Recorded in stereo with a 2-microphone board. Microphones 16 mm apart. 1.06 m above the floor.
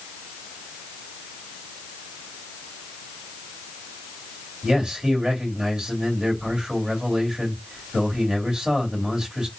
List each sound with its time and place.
4.6 s a man speaking: 35° right (ahead or behind), 2.5 m